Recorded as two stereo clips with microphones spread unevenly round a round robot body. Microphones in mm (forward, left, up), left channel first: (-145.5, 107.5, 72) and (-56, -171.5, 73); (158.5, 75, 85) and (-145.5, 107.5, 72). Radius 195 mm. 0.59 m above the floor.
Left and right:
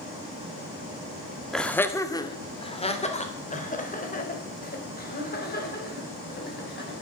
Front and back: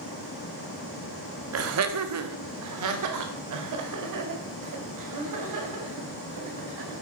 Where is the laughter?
165° right, 1.8 m; by 7.0 s 160° left, 6 m.